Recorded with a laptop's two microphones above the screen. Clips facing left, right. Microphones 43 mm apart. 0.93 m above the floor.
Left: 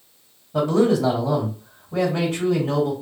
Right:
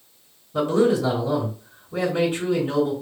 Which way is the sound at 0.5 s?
70° left (ahead or behind).